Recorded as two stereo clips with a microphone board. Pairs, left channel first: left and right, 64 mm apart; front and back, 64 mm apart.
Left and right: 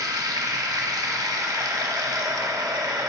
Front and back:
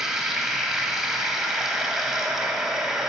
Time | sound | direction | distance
0.0 | running water | 95° right | 0.8 m